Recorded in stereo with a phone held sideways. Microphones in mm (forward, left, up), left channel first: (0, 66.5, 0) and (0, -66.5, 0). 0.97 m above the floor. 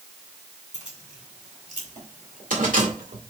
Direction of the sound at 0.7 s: 65° right (ahead or behind).